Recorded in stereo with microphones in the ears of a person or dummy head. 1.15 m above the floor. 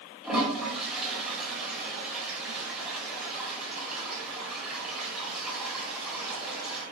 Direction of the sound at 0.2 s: Centre (ahead or behind).